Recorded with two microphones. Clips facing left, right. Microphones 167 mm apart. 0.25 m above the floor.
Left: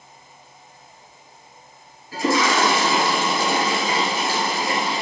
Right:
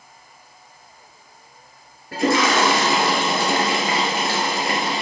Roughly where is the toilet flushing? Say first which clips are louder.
Right 1 dB; right.